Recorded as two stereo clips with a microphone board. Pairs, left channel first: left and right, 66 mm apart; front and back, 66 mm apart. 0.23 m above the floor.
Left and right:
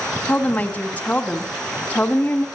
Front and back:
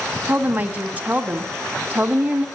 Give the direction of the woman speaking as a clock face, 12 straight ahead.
8 o'clock.